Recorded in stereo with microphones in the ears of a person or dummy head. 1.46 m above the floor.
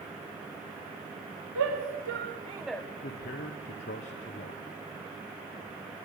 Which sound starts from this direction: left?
A man speaking, at 3.0 s.